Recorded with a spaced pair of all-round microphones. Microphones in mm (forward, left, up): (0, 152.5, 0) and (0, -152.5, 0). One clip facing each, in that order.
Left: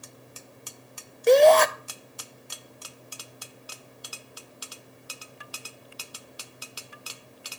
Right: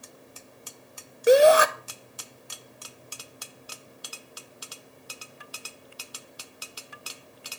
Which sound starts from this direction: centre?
A shout, at 1.3 s.